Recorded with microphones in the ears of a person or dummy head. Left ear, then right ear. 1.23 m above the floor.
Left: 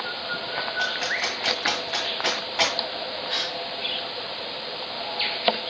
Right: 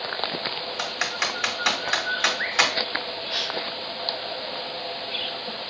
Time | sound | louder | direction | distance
0.8 | typing on a keyboard | even | 45° right (ahead or behind) | 1.8 m
3.3 | a gasp | even | 40° left (ahead or behind) | 1.2 m